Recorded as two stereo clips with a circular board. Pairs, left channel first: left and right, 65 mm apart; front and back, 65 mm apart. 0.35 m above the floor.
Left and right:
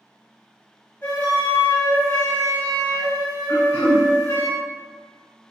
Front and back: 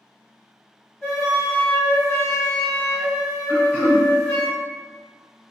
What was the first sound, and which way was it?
A flute, 75° left.